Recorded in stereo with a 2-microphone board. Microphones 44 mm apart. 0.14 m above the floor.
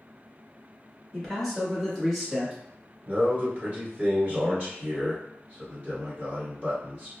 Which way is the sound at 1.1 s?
5° left (ahead or behind).